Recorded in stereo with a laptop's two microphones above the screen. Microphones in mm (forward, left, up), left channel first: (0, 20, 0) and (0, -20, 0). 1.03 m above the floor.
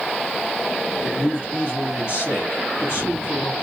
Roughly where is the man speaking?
Left.